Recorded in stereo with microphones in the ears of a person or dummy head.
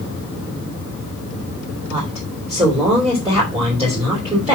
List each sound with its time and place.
1.9 s a woman speaking: 20° right (ahead or behind), 3.5 m